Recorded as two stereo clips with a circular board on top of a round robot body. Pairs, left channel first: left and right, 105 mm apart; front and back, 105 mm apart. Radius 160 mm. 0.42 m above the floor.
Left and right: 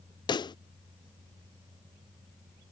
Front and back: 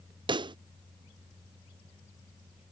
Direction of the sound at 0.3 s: 135° left.